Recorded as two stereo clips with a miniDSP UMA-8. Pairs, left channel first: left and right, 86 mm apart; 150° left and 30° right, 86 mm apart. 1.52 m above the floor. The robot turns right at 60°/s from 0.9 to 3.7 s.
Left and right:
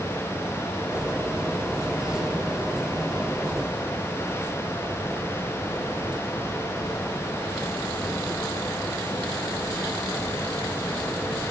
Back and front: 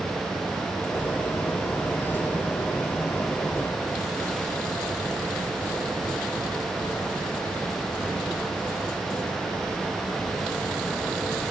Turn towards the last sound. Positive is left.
No sound to turn to.